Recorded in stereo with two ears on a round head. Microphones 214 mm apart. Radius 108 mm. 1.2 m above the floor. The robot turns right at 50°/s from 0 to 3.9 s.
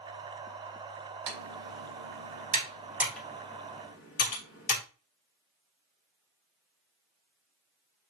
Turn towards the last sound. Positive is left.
turn(degrees=35)  # may be behind; listen again after turning